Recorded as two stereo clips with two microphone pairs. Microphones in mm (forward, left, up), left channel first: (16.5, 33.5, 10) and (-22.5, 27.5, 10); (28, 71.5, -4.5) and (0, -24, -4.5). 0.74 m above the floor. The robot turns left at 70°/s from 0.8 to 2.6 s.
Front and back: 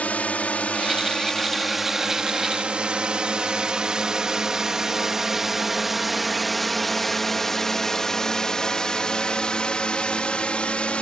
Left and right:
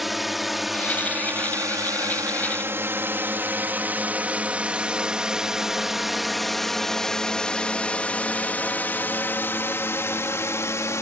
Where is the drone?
20° right; by 11.0 s 40° left.